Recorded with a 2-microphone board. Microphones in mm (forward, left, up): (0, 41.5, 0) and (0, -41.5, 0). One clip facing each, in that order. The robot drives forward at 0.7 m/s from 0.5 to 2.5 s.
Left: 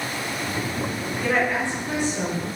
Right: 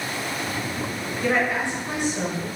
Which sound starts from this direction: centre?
A woman speaking, at 1.2 s.